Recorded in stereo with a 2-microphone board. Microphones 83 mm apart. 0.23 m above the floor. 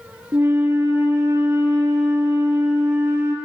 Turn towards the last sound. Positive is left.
turn(degrees=-35)  # may be behind; listen again after turning